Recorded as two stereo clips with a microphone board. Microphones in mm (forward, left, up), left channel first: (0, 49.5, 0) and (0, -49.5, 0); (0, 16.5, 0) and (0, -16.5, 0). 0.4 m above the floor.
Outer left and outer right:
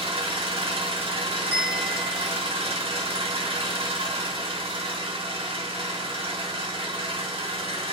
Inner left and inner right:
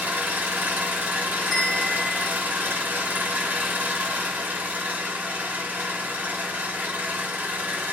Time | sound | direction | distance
0.0 | an engine running | 70° right (ahead or behind) | 0.8 m
1.5 | a bell | 5° right (ahead or behind) | 1.3 m